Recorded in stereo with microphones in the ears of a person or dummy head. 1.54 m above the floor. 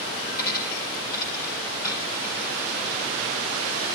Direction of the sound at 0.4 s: 50° left (ahead or behind).